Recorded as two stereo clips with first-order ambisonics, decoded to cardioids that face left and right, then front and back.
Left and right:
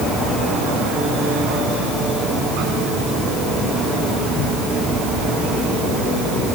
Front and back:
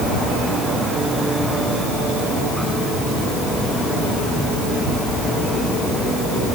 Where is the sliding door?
I don't hear a sliding door.